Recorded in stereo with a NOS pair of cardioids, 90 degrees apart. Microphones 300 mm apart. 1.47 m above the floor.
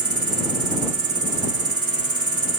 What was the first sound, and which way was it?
An insect, 50° right.